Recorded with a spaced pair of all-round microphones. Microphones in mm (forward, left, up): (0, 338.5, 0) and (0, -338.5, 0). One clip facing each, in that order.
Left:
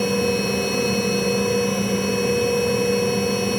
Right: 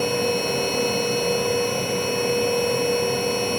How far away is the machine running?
About 1.0 m.